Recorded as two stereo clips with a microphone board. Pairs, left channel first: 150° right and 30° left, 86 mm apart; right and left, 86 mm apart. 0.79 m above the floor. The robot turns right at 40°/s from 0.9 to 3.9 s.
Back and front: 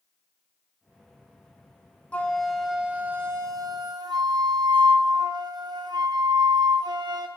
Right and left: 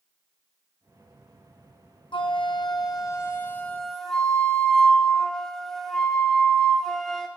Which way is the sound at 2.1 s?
75° right.